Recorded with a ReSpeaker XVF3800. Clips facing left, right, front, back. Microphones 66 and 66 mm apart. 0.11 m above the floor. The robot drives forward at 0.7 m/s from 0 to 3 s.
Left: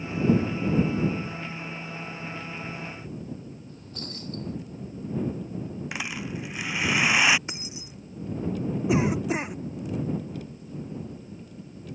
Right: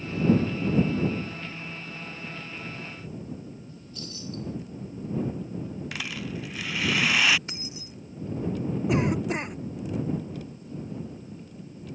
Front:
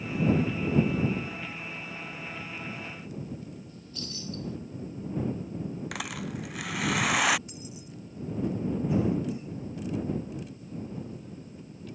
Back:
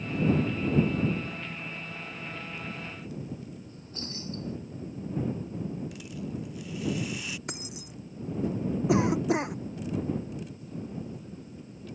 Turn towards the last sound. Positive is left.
turn(degrees=175)